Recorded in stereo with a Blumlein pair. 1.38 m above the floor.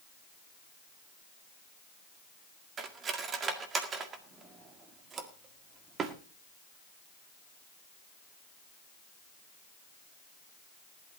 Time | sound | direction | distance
2.8 | cutlery clinking | 25° right | 1.8 m